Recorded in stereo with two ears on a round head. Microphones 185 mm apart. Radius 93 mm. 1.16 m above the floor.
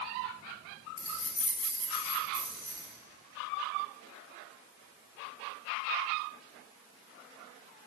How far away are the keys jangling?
About 1.6 m.